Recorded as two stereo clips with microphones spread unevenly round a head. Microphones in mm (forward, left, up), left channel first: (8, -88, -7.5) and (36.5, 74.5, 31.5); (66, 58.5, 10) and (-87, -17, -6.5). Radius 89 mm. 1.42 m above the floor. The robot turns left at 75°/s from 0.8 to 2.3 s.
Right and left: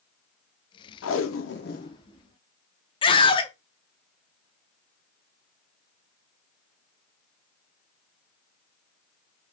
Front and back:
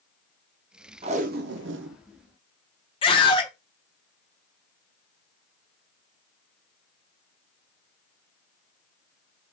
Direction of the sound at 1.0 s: 95° right.